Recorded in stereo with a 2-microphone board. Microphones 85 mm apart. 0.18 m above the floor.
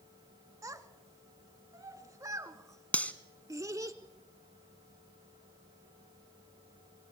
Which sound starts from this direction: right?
A child speaking, at 0.6 s.